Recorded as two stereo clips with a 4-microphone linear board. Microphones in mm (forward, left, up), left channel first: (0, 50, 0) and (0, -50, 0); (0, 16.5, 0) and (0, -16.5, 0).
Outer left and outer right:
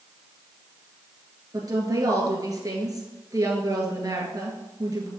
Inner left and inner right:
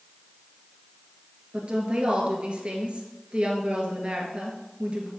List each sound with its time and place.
1.5 s a woman speaking: 40° right (ahead or behind), 1.6 m